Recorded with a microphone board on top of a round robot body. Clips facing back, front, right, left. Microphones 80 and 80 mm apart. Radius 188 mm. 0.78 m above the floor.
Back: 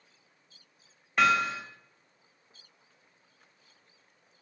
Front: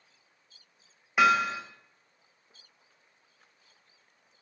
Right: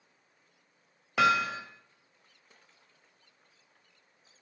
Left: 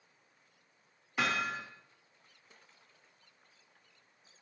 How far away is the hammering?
About 2 m.